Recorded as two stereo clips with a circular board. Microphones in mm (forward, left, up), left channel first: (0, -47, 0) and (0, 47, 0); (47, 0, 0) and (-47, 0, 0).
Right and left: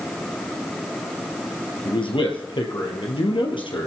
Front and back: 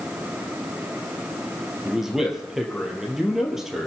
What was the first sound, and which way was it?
A man speaking, 95° right.